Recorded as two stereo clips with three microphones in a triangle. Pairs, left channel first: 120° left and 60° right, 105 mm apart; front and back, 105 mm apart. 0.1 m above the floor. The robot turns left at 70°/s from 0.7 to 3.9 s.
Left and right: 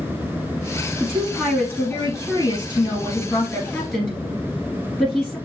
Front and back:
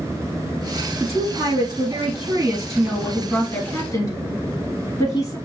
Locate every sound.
1.0 s a woman speaking: 135° right, 1.3 m; by 5.4 s 25° left, 1.3 m